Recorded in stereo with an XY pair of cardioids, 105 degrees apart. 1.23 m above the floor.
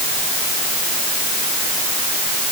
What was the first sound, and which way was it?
Only background noise.